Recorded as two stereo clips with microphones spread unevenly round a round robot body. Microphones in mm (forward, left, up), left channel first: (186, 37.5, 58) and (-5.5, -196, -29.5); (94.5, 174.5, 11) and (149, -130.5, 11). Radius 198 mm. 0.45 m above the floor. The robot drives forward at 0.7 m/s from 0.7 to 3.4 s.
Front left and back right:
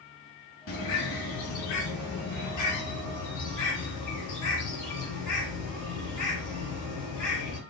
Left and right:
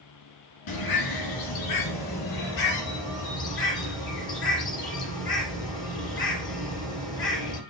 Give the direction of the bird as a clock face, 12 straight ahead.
9 o'clock.